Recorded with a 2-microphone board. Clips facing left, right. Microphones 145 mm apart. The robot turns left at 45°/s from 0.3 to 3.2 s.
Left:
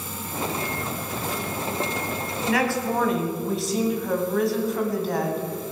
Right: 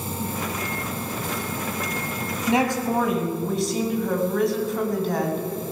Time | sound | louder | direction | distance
2.5 | a woman speaking | right 2 dB | 150° right | 2.5 m